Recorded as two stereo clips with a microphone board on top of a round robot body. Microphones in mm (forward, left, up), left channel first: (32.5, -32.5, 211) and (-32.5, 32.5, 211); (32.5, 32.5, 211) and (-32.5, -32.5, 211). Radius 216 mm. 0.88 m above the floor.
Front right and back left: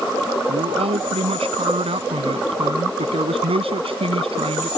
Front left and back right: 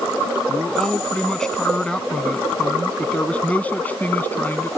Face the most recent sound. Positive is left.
turn(degrees=115)